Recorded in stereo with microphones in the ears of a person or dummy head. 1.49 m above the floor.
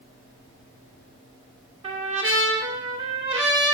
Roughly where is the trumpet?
Right.